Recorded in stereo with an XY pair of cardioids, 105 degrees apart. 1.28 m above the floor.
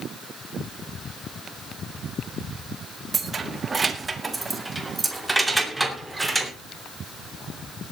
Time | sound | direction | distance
3.1 | keys jangling | 40° right | 1.6 m